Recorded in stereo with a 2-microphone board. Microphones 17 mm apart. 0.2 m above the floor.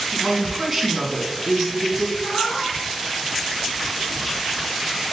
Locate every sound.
0.1 s a woman speaking: 5° right (ahead or behind), 2 m
2.2 s a cat meowing: 55° left (ahead or behind), 1.5 m